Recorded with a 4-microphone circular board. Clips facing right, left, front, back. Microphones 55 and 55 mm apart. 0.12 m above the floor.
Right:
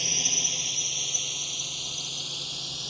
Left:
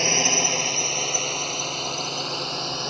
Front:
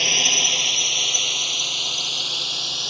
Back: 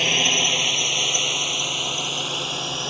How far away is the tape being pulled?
I don't hear tape being pulled.